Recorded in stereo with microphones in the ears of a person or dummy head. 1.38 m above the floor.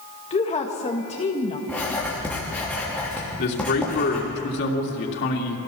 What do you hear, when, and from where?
0.3 s a woman speaking: 25° left (ahead or behind), 2 m
1.7 s writing: 5° left (ahead or behind), 3.5 m
3.4 s a man speaking: 55° left (ahead or behind), 2.5 m